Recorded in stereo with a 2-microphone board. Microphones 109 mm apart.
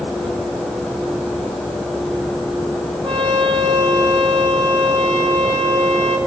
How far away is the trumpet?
About 3.5 m.